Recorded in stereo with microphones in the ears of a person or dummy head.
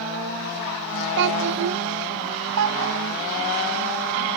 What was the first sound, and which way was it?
A child speaking, 60° right (ahead or behind).